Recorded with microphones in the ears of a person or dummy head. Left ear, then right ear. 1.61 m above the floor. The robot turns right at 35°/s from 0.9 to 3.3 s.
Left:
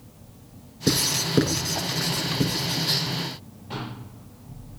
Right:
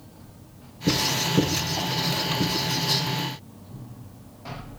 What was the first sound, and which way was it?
Writing, 75° left (ahead or behind).